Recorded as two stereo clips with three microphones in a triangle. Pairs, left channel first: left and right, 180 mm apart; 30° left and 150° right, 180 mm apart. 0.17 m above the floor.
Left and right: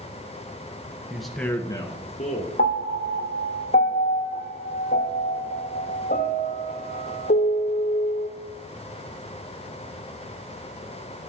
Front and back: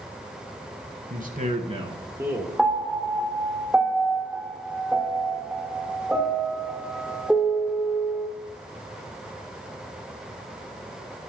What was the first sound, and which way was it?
A man speaking, 175° right.